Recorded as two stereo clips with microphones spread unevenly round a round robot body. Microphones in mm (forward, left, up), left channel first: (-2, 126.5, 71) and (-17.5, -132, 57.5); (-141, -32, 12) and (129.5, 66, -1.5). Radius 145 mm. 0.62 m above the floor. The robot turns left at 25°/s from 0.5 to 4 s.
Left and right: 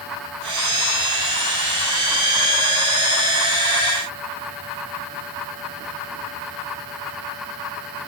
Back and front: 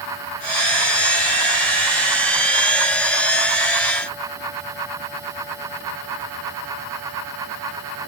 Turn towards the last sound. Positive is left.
No sound to turn to.